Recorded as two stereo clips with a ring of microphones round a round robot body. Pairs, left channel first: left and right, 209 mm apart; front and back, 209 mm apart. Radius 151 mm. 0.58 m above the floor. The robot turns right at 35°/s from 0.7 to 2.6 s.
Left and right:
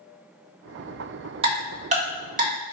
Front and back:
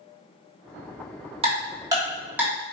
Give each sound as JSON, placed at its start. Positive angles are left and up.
{"t": 1.4, "sound": "ticking", "azimuth_deg": -135, "distance_m": 1.5}